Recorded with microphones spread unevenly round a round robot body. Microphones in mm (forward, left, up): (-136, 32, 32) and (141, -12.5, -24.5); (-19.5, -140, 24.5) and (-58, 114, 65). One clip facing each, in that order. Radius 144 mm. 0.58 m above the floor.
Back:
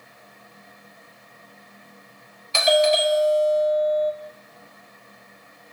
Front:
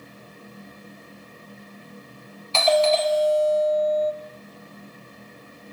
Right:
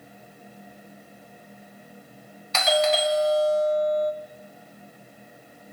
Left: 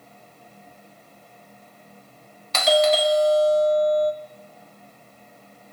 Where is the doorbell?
90° left, 1.7 m.